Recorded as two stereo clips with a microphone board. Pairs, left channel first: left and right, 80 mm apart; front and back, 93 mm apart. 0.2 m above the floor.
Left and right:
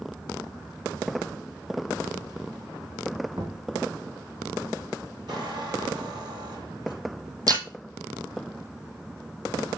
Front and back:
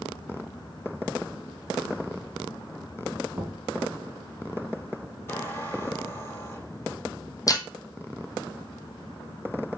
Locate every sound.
3.3 s knocking: 110° right, 1.7 m
5.3 s a squeak: 60° right, 4 m
7.5 s breaking glass: 50° right, 1.2 m